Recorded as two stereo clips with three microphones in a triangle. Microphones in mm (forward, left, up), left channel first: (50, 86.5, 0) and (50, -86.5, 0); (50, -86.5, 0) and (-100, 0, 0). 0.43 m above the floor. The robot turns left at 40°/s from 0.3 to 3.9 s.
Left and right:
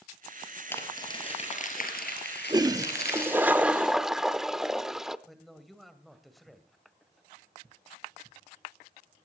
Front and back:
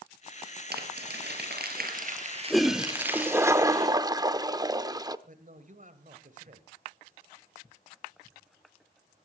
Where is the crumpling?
165° left, 3.5 m; by 3.5 s 55° left, 3.5 m.